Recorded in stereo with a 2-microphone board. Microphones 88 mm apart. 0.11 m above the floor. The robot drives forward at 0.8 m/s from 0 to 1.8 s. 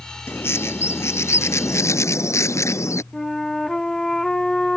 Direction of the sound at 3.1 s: 5° left (ahead or behind).